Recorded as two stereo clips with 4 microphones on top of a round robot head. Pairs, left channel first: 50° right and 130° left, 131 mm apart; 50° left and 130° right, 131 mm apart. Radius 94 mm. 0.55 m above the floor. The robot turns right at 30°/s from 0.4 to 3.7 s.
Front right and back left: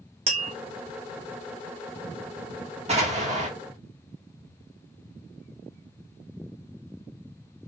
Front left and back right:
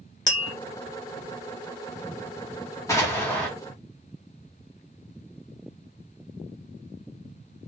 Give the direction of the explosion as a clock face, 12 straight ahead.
8 o'clock.